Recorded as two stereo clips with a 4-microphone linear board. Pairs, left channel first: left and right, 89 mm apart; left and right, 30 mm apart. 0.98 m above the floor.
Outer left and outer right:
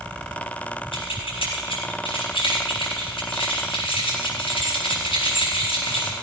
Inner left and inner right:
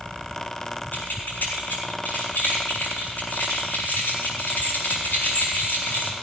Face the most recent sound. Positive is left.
turn(degrees=85)